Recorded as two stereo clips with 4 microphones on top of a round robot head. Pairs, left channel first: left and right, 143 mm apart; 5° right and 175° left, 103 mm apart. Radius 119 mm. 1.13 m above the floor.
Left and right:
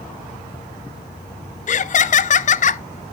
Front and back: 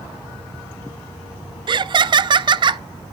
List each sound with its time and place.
1.7 s laughter: 125° left, 0.6 m